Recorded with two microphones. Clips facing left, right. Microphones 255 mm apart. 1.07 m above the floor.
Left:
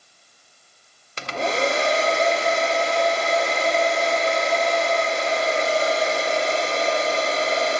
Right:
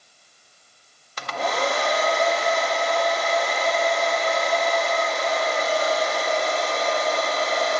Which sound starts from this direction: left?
A hair dryer, at 1.2 s.